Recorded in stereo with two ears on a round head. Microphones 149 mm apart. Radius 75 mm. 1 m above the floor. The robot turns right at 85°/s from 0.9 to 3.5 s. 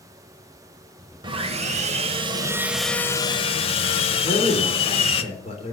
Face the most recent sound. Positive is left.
turn(degrees=40)  # may be behind; listen again after turning